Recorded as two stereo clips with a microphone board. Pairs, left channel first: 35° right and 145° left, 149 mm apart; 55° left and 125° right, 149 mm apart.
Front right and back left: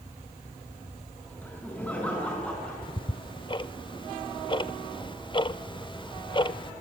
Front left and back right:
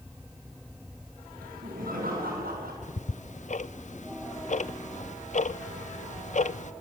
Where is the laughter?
110° right, 6 m; by 2.7 s 115° right, 6 m.